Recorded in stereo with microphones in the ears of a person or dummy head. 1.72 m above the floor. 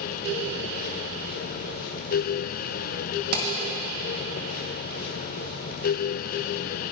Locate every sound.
3.3 s hammering: 50° right (ahead or behind), 1.6 m